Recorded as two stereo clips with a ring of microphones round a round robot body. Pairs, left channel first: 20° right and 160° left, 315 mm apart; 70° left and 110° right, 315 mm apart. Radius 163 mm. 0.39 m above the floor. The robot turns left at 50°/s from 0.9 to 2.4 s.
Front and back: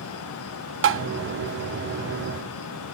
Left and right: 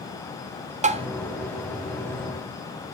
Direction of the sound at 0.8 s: 170° right.